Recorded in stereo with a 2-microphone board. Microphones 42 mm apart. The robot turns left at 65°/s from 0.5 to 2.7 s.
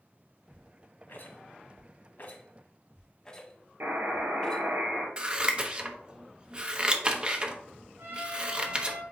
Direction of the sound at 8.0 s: 75° right (ahead or behind).